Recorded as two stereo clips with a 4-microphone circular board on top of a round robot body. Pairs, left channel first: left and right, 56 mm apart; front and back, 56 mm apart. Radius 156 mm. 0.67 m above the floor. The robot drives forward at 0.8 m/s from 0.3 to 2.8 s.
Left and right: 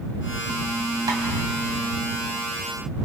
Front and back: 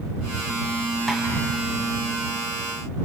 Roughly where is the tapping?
Right.